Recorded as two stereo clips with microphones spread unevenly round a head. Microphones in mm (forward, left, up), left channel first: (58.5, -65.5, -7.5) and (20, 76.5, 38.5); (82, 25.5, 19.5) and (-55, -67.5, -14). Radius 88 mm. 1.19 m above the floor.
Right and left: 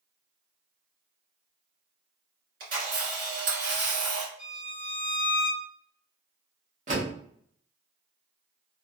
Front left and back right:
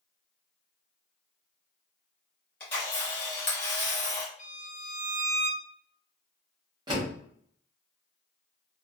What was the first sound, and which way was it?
A camera shutter, 110° left.